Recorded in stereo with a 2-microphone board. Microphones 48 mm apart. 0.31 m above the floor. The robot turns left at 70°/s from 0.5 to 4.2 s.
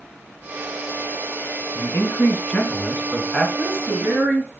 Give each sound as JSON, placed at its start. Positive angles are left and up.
{"t": 1.8, "sound": "a man speaking", "azimuth_deg": 110, "distance_m": 2.5}
{"t": 3.6, "sound": "a woman speaking", "azimuth_deg": 0, "distance_m": 6.0}